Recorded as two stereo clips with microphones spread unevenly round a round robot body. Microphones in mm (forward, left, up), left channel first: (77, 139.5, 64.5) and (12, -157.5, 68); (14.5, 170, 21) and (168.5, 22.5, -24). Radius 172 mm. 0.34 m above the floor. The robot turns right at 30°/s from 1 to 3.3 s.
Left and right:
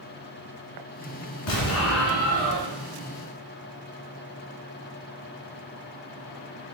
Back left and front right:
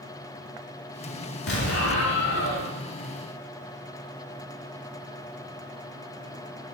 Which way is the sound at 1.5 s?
120° left.